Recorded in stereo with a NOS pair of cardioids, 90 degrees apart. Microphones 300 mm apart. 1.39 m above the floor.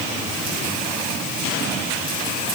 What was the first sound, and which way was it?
Only background noise.